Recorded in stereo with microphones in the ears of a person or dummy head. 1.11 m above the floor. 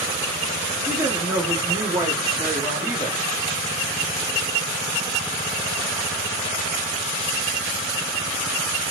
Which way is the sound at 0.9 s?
15° right (ahead or behind).